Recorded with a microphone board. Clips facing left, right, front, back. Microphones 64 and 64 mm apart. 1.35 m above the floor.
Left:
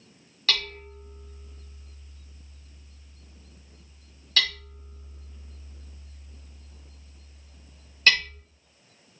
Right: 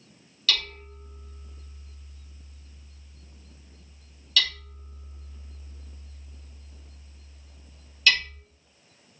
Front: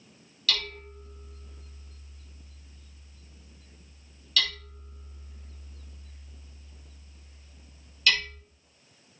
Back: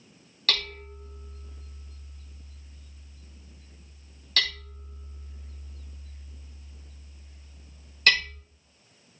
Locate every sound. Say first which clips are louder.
0.5 s hammering: even, back 1 dB; 135° left, 4.5 m